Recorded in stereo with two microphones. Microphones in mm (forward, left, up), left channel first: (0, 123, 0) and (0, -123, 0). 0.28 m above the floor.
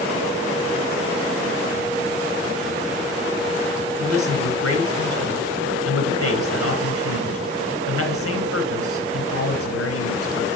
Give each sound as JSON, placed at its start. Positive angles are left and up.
{"t": 4.0, "sound": "a man speaking", "side_deg": 70, "distance_m": 3.0}